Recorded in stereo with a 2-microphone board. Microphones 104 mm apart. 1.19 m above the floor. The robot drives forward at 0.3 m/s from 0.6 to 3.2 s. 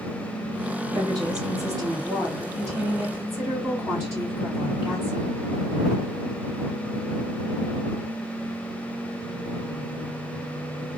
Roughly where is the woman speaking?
Right.